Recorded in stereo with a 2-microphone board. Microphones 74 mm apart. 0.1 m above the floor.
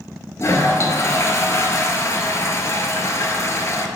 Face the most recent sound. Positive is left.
turn(degrees=40)  # may be behind; listen again after turning